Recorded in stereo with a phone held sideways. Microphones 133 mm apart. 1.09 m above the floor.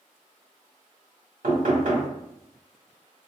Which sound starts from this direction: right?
Knocking, at 1.4 s.